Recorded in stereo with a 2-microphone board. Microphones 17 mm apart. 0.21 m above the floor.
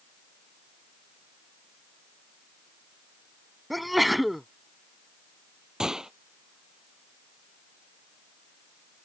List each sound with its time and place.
3.7 s a sneeze: 5° right (ahead or behind)
5.8 s a gunshot: 35° right (ahead or behind)